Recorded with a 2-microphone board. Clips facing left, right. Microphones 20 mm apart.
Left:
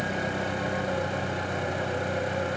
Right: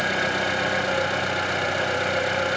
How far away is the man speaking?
No man speaking in this recording.